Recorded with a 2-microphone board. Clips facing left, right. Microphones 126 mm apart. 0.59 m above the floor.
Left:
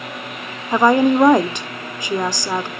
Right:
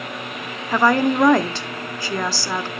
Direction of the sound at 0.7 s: 20° left (ahead or behind).